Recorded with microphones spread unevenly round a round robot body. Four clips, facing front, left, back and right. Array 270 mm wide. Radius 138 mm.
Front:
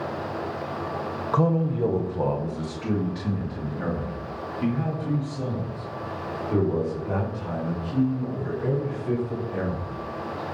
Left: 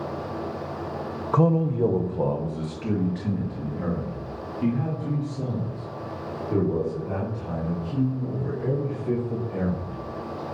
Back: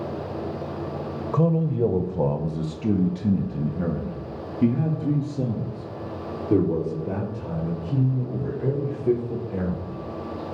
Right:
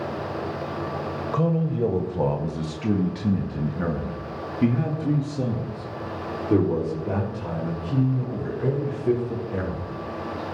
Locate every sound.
1.3 s a man speaking: 150° left, 0.9 m; by 10.0 s 140° right, 8.5 m